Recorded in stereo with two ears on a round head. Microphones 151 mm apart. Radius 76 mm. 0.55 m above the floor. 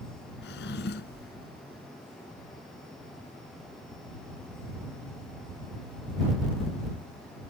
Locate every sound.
0.4 s a drawer: 75° left (ahead or behind)